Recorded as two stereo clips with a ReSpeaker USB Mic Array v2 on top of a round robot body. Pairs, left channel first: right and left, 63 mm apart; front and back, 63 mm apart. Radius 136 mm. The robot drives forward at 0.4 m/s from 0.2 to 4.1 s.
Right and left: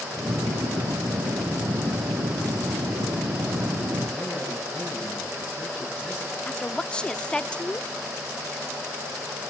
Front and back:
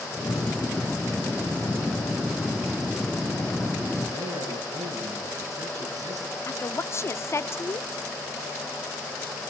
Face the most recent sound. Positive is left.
turn(degrees=-20)